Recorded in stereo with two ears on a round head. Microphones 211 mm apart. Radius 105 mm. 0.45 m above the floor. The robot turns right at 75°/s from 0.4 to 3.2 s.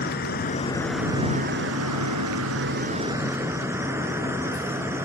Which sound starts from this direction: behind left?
An insect, at 0.0 s.